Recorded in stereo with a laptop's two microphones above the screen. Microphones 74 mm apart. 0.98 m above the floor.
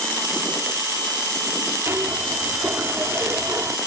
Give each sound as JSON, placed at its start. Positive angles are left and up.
{"t": 1.9, "sound": "a zipper", "side_deg": -35}